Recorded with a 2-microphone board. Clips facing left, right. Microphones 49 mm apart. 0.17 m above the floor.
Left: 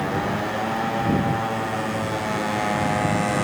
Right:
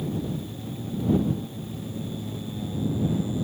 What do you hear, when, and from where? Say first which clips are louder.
0.0 s a motorcycle: left 7 dB; 80° left